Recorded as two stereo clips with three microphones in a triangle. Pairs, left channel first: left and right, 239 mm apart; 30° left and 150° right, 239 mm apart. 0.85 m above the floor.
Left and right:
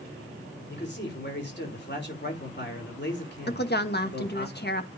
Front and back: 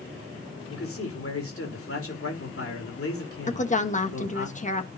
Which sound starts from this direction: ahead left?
A man speaking, at 0.7 s.